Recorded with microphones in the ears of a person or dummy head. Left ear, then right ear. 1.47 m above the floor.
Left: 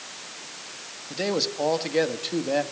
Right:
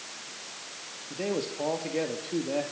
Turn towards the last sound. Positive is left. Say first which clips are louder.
# left 6 dB
turn(degrees=40)  # may be behind; listen again after turning